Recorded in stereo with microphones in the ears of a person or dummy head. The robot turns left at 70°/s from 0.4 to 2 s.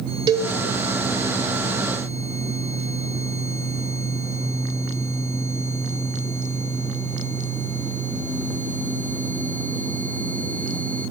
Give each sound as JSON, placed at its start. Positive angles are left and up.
{"t": 0.3, "sound": "a cowbell", "side_deg": -20, "distance_m": 1.0}